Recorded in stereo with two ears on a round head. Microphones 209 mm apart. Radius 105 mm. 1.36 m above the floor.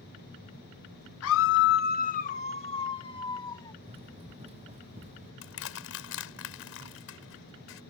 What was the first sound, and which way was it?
A scream, 60° left (ahead or behind).